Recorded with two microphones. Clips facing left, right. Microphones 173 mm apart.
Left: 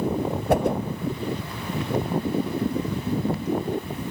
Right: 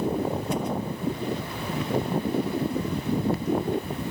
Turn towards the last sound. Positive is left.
turn(degrees=60)  # may be behind; listen again after turning